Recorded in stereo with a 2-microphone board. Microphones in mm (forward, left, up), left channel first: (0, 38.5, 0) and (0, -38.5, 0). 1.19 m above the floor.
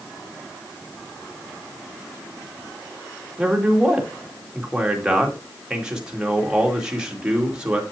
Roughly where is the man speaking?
Centre.